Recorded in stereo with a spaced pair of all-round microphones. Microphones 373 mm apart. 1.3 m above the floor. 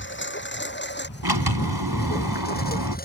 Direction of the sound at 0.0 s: 30° left (ahead or behind).